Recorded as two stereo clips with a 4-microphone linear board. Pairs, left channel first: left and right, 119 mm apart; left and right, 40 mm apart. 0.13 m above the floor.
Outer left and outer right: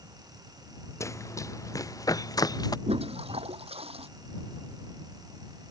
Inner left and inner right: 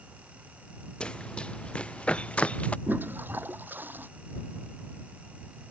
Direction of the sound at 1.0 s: 25° left (ahead or behind).